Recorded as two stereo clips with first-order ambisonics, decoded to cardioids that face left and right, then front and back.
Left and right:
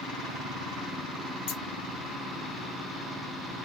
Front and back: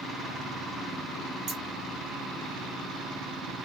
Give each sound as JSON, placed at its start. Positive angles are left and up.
{"t": 1.5, "sound": "scissors", "azimuth_deg": 130, "distance_m": 1.8}